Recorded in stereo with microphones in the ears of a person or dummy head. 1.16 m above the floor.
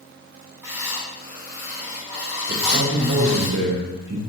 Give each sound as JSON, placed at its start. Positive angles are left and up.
{"t": 0.6, "sound": "writing", "side_deg": -10, "distance_m": 2.5}
{"t": 2.5, "sound": "a man speaking", "side_deg": -55, "distance_m": 3.0}